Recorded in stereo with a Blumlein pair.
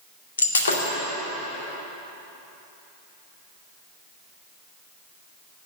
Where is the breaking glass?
70° left, 2 m.